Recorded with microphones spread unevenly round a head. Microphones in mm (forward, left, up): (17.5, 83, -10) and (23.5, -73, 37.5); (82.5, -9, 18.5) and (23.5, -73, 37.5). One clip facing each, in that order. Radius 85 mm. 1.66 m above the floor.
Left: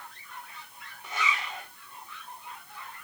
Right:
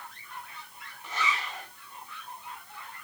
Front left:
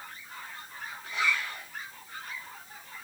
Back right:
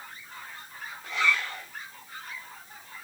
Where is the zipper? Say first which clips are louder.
Even, back right 3 dB; 175° left, 6.5 m.